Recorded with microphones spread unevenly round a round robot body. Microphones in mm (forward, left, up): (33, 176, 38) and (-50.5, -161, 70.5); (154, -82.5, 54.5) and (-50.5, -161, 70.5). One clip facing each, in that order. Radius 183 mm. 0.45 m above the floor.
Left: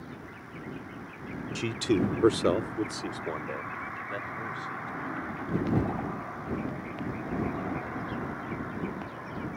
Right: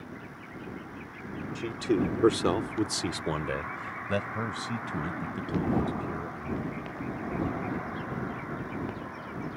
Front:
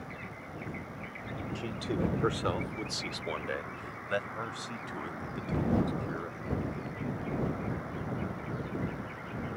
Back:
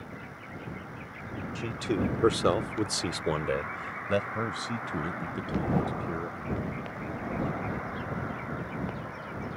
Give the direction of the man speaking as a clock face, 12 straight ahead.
8 o'clock.